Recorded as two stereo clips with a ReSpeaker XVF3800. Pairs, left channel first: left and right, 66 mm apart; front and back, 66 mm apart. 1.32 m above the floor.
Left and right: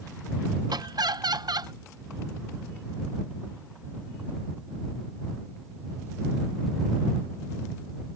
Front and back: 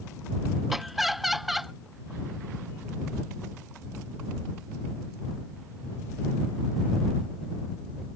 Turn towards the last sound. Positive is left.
turn(degrees=-95)